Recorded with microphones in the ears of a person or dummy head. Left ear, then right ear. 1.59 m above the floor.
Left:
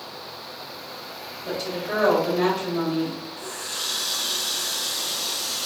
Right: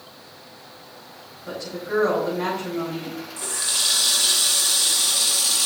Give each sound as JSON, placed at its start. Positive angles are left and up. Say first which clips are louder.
{"t": 1.4, "sound": "a woman speaking", "louder": "left 1 dB", "side_deg": 50, "distance_m": 4.5}
{"t": 3.4, "sound": "a running tap", "louder": "right 9 dB", "side_deg": -45, "distance_m": 0.9}